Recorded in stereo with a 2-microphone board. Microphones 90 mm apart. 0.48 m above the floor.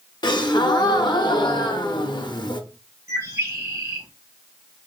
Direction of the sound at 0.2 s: 55° left (ahead or behind).